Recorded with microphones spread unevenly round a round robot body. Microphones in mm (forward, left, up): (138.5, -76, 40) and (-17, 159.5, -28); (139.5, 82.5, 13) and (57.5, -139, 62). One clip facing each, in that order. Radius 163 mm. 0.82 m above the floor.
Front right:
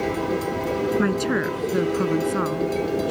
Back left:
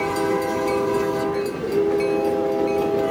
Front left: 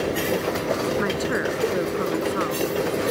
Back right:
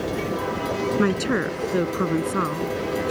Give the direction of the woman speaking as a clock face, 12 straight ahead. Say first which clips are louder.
Even, back right 3 dB; 2 o'clock.